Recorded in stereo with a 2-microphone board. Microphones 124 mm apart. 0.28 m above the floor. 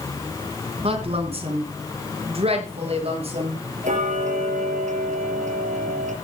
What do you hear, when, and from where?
0.8 s a woman speaking: 50° right (ahead or behind), 3 m; by 3.6 s 55° right (ahead or behind), 6 m
3.8 s ticking: 80° right, 4.5 m